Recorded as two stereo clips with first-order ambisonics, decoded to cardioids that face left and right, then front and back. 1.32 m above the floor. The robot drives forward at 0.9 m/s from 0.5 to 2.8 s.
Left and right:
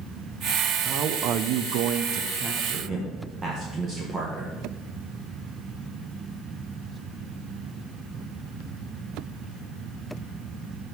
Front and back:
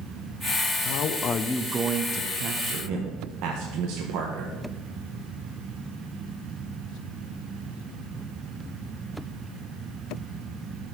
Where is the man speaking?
35° right, 0.8 m; by 4.6 s 155° right, 1.2 m.